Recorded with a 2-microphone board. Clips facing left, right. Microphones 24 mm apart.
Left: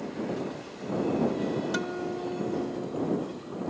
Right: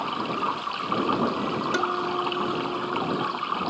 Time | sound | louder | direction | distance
0.0 | running water | right 6 dB | 85° right | ?
1.7 | a guitar | right 6 dB | 15° right (ahead or behind) | ?